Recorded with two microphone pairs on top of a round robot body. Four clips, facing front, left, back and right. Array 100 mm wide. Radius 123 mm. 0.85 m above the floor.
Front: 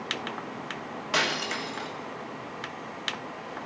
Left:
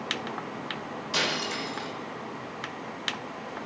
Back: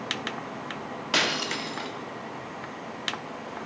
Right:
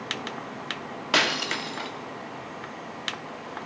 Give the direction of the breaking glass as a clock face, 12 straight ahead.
3 o'clock.